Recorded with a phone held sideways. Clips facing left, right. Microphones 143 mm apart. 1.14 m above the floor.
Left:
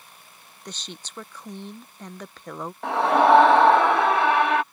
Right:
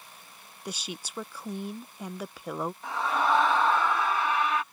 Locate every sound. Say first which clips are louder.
0.7 s a woman speaking: right 2 dB; 10° right (ahead or behind)
2.8 s a scream: left 11 dB; 65° left (ahead or behind)